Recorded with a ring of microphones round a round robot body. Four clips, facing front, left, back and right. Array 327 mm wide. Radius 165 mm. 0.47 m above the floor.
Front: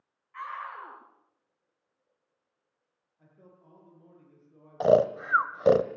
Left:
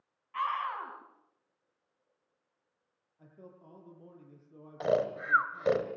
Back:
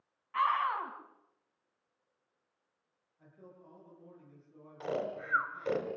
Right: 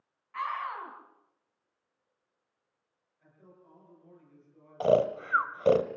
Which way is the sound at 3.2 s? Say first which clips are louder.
Left 5 dB, back 2 dB; 90° left.